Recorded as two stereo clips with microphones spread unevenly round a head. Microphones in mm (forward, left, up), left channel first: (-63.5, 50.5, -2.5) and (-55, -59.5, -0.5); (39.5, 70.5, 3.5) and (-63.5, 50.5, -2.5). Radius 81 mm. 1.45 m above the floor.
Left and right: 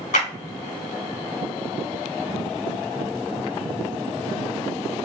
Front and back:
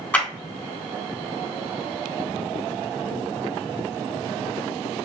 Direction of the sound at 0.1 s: 85° left.